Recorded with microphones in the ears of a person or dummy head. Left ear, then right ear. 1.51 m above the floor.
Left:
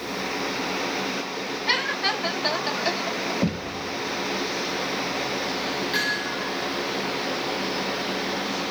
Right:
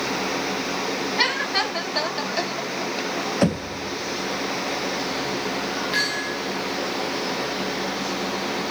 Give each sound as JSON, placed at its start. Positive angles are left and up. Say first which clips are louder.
{"t": 3.4, "sound": "knocking", "louder": "right 5 dB", "side_deg": -45, "distance_m": 0.9}
{"t": 5.9, "sound": "hammering", "louder": "right 2 dB", "side_deg": -5, "distance_m": 10.0}